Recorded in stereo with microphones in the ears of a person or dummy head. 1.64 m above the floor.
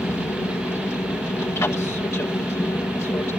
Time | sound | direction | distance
0.0 | an aircraft | 15° left (ahead or behind) | ?